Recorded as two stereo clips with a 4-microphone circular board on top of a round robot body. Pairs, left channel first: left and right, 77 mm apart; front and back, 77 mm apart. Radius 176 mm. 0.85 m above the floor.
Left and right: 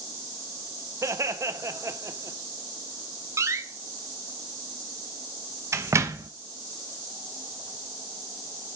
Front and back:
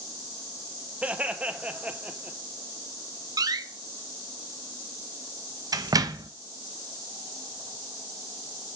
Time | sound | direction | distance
1.0 | laughter | 115° right | 1.2 m
3.4 | a door slam | 140° right | 0.6 m